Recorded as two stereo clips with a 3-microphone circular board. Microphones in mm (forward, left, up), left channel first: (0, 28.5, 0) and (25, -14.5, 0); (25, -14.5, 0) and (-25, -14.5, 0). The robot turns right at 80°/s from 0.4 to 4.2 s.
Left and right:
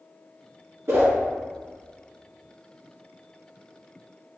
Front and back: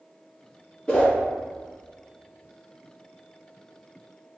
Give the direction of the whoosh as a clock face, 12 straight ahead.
2 o'clock.